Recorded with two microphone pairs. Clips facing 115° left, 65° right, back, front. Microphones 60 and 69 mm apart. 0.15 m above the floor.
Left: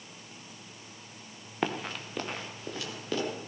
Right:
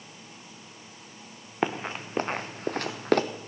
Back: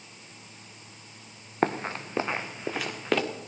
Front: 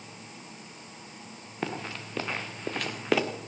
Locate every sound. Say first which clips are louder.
1.6 s running footsteps: right 3 dB, back 7 dB; 135° right, 1.1 m; by 3.2 s 85° right, 1.4 m